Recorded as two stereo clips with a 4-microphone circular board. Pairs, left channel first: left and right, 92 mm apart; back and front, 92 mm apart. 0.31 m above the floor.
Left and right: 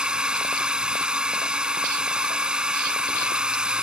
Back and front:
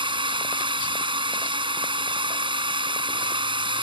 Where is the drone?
10° right.